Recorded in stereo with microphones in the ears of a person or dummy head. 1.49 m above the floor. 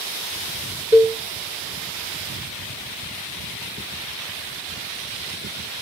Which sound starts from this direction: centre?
A cowbell, at 0.9 s.